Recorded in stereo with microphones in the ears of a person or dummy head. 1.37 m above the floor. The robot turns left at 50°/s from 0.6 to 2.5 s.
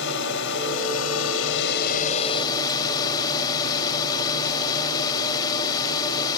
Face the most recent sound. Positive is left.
turn(degrees=20)